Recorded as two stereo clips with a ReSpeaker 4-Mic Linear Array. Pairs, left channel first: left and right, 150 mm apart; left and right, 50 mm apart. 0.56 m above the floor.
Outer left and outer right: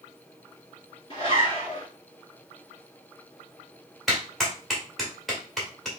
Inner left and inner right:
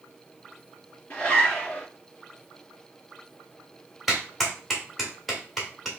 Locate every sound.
1.1 s a zipper: 35° left (ahead or behind), 3 m
4.1 s a clap: centre (ahead or behind), 2 m